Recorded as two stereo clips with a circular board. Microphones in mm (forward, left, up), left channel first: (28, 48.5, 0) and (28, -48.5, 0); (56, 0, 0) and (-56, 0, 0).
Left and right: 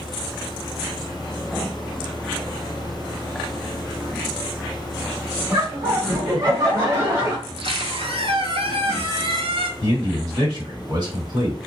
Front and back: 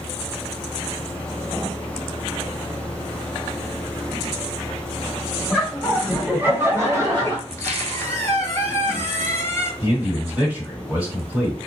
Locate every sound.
5.5 s laughter: 75° right, 1.2 m; by 7.4 s 150° right, 1.4 m
7.5 s a squeak: 70° right, 0.8 m
9.8 s a man speaking: 110° right, 1.3 m